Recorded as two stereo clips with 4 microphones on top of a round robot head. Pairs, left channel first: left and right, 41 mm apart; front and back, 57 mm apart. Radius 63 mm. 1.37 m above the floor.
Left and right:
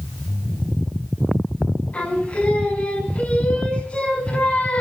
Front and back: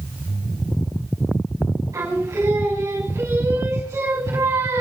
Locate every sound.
1.9 s singing: 145° left, 5.5 m